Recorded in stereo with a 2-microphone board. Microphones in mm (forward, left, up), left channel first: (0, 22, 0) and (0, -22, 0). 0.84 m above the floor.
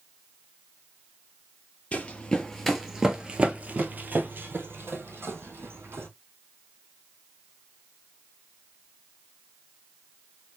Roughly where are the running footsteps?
Left.